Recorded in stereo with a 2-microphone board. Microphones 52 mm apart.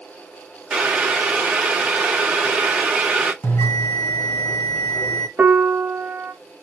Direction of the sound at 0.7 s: 15° right (ahead or behind).